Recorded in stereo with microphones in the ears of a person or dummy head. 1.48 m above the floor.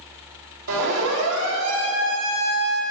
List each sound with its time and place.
0.7 s a siren: 65° right (ahead or behind), 4.5 m; by 2.8 s 85° right, 4.5 m